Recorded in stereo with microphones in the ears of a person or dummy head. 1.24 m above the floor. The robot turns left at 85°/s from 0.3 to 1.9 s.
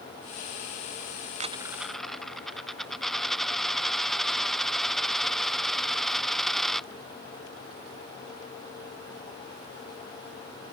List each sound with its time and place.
1.4 s a dropped coin: 135° right; by 6.9 s straight behind